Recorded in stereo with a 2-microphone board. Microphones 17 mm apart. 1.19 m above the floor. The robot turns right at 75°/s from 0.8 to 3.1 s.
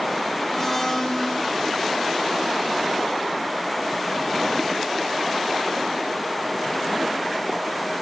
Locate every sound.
0.5 s a blender: 20° left, 1.5 m; by 1.4 s 70° left, 1.5 m